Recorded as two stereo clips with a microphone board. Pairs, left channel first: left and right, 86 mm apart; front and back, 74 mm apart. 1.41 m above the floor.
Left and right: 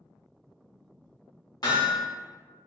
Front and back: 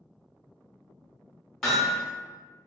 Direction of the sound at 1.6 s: 85° left.